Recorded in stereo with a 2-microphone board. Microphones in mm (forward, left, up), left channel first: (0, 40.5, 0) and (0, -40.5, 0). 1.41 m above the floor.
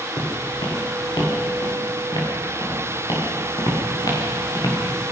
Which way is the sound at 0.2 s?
70° left (ahead or behind).